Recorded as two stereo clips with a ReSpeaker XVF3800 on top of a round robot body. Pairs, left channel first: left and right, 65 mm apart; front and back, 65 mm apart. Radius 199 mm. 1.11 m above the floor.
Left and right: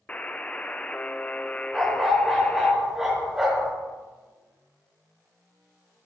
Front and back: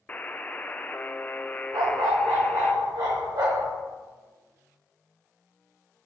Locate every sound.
0.1 s a buzzer: 40° left, 0.7 m
1.7 s a dog barking: 170° right, 1.3 m